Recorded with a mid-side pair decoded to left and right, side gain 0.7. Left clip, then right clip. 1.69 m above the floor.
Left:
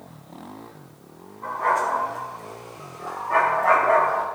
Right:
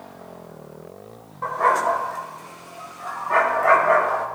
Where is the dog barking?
55° right, 3.5 m; by 4.2 s 15° right, 4.5 m.